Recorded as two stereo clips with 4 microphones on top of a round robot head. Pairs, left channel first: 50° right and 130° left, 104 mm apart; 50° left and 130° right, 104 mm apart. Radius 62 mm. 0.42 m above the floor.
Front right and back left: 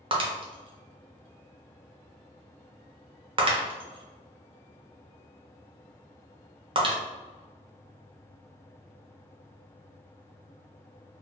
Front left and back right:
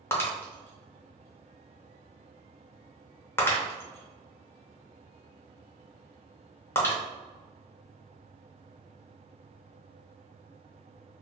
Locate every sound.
0.1 s breaking glass: 110° left, 0.7 m